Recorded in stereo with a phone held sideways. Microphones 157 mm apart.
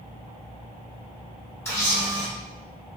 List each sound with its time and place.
1.6 s a camera shutter: 15° left (ahead or behind), 1.6 m